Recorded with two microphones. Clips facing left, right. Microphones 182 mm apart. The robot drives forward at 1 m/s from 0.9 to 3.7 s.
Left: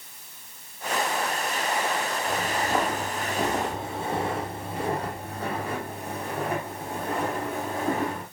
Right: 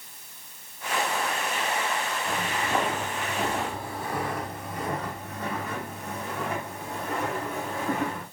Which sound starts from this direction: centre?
Footsteps, at 2.3 s.